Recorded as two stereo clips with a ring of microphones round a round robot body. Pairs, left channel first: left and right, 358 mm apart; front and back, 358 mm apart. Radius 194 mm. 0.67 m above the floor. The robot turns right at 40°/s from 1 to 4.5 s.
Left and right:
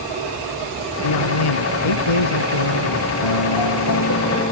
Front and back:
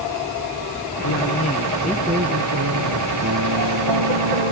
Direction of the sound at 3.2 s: 115° left.